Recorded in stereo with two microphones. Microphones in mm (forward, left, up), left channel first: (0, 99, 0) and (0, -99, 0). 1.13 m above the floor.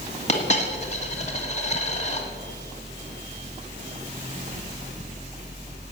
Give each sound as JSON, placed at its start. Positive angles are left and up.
{"t": 0.3, "sound": "a dropped coin", "side_deg": 35, "distance_m": 1.8}